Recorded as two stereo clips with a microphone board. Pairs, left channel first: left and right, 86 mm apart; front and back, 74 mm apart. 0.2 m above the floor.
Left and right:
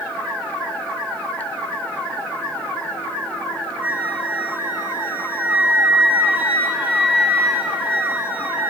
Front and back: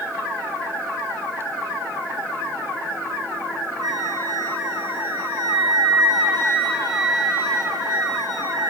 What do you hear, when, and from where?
3.8 s a flute: 160° right, 9 m